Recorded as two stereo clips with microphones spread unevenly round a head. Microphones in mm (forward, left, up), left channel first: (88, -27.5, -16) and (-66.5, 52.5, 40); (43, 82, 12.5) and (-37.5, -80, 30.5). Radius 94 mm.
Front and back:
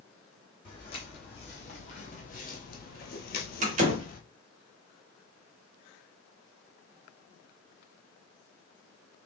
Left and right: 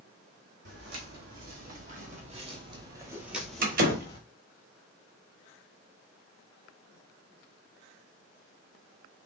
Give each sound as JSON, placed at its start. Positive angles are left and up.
{"t": 0.7, "sound": "footsteps", "azimuth_deg": -100, "distance_m": 2.0}
{"t": 3.6, "sound": "a door slam", "azimuth_deg": -160, "distance_m": 1.2}